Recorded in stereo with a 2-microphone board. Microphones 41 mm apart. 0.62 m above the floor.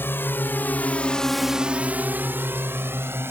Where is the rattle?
I don't hear a rattle.